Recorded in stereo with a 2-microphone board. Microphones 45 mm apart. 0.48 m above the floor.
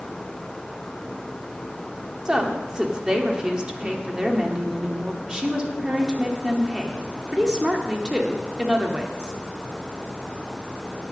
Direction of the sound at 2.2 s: 15° right (ahead or behind).